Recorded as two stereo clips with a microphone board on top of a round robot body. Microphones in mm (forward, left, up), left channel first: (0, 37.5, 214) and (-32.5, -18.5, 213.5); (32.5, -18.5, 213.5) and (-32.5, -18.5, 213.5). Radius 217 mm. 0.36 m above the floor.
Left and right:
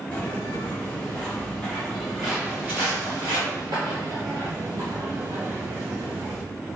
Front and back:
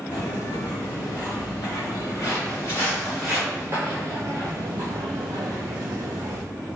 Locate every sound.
0.1 s footsteps: 15° right, 1.7 m; by 6.4 s 170° right, 1.8 m